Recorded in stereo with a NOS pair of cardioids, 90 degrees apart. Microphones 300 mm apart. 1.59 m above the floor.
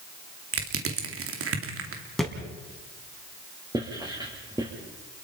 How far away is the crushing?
About 3 m.